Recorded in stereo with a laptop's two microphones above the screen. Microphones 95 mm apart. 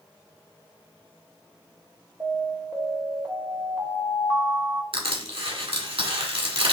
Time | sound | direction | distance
2.2 | an alarm | 20° right (ahead or behind) | 3 m
4.9 | crushing | 75° right (ahead or behind) | 1.6 m